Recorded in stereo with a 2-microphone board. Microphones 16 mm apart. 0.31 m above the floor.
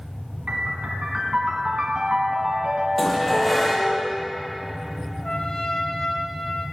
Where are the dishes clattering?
Centre (ahead or behind), 6.5 m.